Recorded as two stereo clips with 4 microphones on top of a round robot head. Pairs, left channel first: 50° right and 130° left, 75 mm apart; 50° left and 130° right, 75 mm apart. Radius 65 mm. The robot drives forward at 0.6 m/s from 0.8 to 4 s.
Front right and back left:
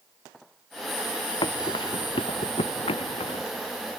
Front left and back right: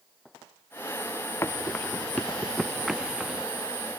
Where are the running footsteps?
15° right; by 3.5 s 50° right.